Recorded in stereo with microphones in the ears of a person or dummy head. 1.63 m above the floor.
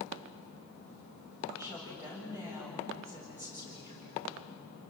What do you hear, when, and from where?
1.5 s a woman speaking: 15° right (ahead or behind), 7.5 m